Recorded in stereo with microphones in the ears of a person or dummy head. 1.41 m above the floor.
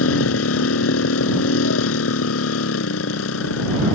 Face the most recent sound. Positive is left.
turn(degrees=85)